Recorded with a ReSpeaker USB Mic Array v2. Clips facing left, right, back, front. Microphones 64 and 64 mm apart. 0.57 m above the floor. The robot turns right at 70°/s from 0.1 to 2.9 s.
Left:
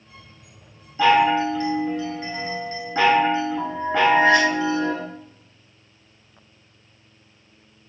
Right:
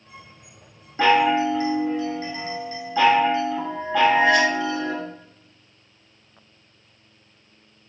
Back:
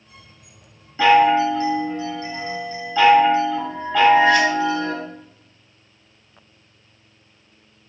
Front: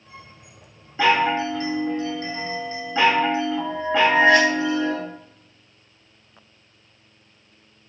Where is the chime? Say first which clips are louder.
Left 1 dB, back 5 dB; 80° right, 1.1 m; by 4.9 s 55° left, 1.1 m.